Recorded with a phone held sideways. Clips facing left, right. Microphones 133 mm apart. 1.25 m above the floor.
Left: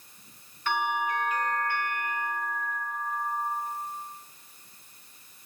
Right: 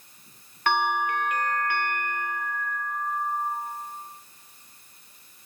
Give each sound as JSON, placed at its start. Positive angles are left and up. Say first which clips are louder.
{"t": 0.7, "sound": "a bell", "louder": "right 4 dB", "side_deg": -65, "distance_m": 1.4}